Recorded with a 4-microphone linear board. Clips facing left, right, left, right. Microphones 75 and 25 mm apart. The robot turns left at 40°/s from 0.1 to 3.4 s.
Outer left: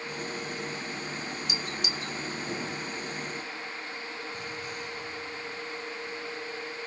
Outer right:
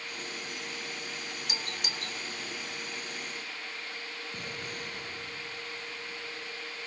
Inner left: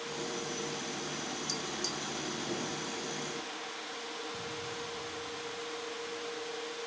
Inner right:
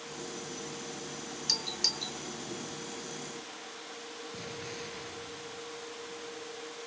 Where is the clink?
I don't hear a clink.